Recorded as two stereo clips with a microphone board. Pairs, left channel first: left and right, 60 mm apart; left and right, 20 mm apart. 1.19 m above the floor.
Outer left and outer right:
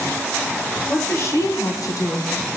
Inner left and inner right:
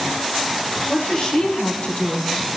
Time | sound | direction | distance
0.9 | a woman speaking | 30° left (ahead or behind) | 0.8 m